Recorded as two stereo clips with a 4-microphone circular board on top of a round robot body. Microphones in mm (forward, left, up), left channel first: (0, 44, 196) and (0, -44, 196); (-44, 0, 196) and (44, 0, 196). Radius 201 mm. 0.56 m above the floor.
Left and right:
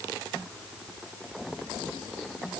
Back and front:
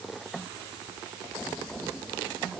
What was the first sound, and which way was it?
Only background noise.